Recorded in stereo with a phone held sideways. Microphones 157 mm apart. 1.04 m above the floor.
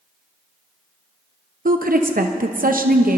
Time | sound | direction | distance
1.6 | a woman speaking | 65° right (ahead or behind) | 0.7 m